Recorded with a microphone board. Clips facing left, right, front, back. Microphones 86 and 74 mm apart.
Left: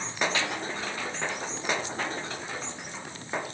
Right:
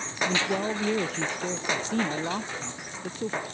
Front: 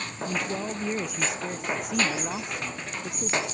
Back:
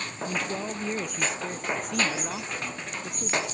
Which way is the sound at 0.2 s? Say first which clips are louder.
Right 6 dB, front 1 dB; 90° right.